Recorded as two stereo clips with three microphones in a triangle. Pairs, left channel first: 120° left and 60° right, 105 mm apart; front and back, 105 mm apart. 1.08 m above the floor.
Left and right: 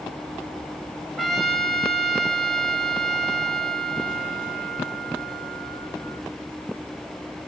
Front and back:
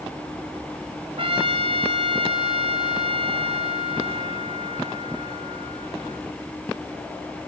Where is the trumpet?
150° right, 2 m.